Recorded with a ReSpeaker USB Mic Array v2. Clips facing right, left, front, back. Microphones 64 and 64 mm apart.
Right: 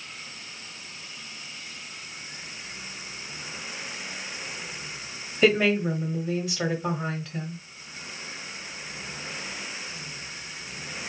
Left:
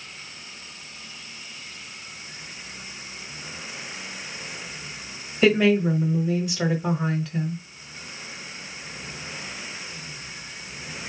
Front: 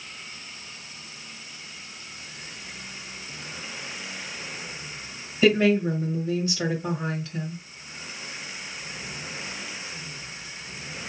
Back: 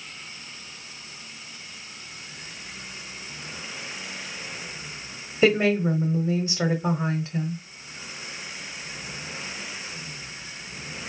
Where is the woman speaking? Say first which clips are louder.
Left 3 dB, even; 175° left, 1.0 m.